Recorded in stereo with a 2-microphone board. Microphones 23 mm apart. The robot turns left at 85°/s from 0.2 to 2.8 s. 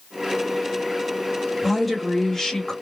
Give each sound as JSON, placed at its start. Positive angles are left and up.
{"t": 1.6, "sound": "a woman speaking", "side_deg": -10, "distance_m": 1.2}